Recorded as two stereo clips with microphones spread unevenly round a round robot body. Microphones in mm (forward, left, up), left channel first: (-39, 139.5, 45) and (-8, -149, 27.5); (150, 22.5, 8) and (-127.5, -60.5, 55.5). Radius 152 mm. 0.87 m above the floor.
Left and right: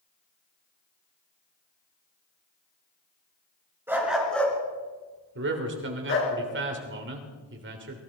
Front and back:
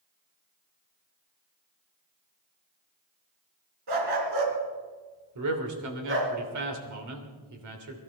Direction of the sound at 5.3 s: 135° right.